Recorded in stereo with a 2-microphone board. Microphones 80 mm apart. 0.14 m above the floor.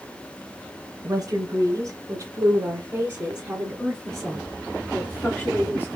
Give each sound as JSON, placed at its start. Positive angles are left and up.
{"t": 1.0, "sound": "a woman speaking", "side_deg": -40, "distance_m": 2.0}